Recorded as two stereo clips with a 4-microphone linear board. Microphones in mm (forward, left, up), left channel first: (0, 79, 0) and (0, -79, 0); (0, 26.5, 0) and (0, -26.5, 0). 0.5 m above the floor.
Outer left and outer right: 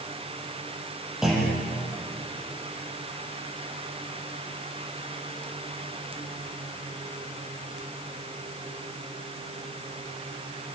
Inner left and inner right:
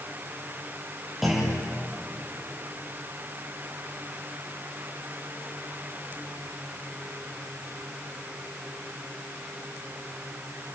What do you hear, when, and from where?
1.2 s a clunk: 5° right (ahead or behind), 8.5 m